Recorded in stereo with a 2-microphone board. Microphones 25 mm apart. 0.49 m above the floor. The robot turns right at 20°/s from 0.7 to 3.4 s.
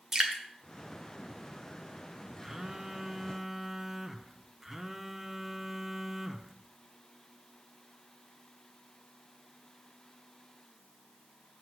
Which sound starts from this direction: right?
Dripping, at 0.1 s.